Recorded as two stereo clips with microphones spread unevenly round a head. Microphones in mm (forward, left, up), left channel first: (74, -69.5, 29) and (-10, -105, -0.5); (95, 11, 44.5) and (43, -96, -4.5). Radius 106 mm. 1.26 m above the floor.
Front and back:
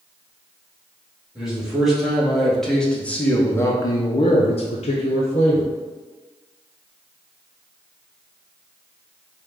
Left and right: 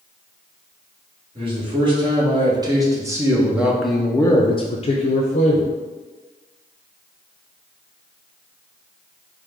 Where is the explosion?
No explosion in this recording.